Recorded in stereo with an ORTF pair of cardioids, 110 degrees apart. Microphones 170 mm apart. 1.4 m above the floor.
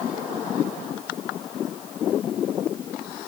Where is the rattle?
I don't hear a rattle.